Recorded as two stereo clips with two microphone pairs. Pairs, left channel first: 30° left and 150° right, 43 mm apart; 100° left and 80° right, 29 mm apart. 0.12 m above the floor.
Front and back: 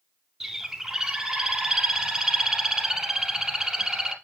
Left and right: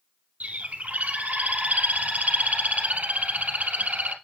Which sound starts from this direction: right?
A bird, at 0.4 s.